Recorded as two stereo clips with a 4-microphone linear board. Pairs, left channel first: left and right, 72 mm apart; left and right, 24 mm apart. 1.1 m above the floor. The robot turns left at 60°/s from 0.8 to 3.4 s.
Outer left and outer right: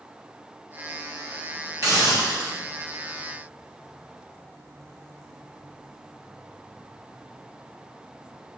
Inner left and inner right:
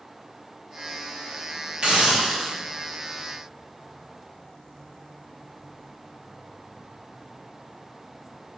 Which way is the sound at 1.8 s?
50° right.